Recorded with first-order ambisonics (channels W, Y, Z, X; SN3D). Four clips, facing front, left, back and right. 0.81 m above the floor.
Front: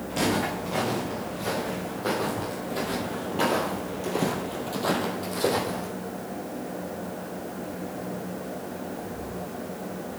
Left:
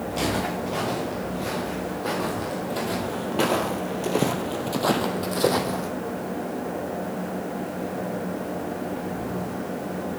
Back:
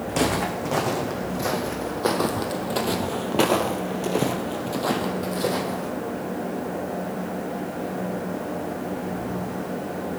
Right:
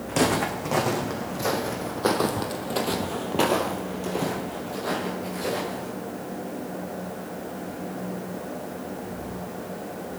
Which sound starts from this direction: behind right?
Footsteps, at 0.1 s.